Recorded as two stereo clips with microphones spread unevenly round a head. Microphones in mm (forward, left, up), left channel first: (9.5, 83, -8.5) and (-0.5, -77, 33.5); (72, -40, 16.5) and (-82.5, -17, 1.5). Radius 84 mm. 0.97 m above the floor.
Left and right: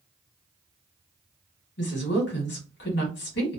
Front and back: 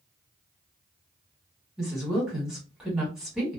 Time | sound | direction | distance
1.8 | a woman speaking | 85° left | 1.3 m